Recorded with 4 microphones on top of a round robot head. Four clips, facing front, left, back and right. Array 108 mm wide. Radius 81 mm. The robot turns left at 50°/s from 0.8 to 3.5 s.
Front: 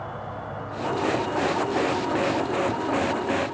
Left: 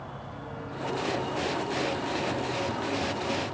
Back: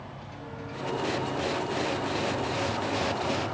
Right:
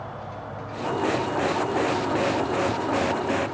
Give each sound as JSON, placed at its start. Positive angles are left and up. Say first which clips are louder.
{"t": 0.0, "sound": "an insect", "louder": "right 5 dB, front 8 dB", "azimuth_deg": -30, "distance_m": 3.0}